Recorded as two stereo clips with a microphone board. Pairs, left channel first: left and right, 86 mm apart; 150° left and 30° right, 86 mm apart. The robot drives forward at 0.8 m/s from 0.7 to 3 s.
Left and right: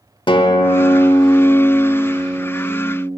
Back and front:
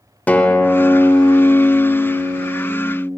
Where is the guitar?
80° left, 0.9 m; by 3.1 s 155° left, 1.9 m.